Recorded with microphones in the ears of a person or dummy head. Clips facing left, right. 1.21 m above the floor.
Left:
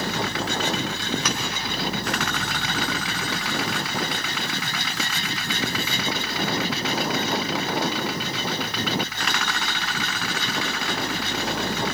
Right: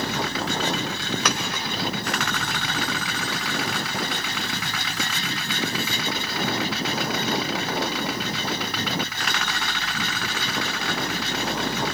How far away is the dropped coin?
About 1.4 m.